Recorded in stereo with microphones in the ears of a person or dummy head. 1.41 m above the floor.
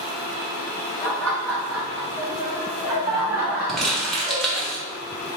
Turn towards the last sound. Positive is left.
turn(degrees=5)  # may be behind; listen again after turning